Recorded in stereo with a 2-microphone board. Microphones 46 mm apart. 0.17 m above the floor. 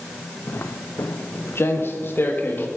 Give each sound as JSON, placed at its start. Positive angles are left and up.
{"t": 0.5, "sound": "footsteps", "side_deg": 60, "distance_m": 0.6}